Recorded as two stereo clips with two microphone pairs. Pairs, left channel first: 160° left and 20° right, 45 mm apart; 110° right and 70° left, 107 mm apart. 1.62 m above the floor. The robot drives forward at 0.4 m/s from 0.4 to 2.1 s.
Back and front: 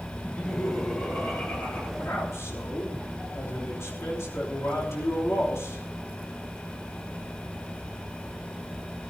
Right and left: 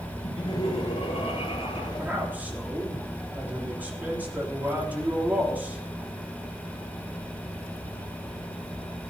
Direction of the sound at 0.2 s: 140° right.